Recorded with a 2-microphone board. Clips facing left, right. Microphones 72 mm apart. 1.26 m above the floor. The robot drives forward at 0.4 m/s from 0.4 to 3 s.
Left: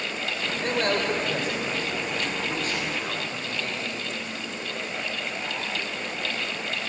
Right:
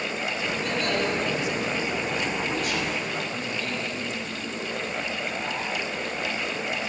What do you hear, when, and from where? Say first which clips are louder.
0.6 s a man speaking: left 3 dB; 45° left (ahead or behind), 5 m; by 4.1 s 35° left (ahead or behind), 6 m